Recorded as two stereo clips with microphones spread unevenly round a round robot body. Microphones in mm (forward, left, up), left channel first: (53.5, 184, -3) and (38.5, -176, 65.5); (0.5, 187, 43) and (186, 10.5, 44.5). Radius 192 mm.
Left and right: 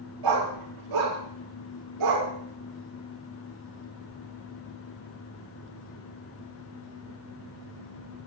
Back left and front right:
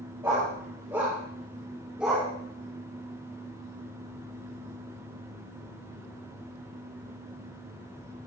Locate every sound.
0.2 s a dog barking: 125° right, 7 m; by 2.3 s 130° right, 6 m